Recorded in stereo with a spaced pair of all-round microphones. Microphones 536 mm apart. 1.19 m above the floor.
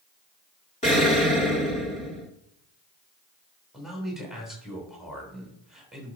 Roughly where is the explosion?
Centre.